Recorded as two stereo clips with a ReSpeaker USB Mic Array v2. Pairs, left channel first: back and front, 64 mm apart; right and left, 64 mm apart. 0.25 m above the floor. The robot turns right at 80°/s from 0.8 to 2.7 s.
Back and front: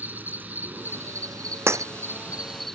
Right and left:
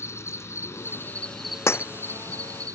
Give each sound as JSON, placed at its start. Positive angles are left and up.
{"t": 0.0, "sound": "an insect", "azimuth_deg": -55}
{"t": 1.7, "sound": "breaking glass", "azimuth_deg": -45}